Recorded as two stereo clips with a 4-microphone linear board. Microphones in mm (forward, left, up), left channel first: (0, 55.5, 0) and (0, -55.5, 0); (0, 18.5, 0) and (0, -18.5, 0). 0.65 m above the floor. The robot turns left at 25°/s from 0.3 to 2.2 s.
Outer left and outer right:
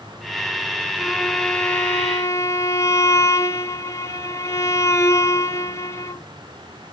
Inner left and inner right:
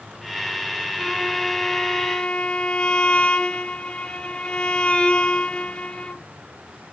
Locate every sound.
1.0 s a violin: 175° right, 0.5 m; by 6.2 s 155° left, 0.5 m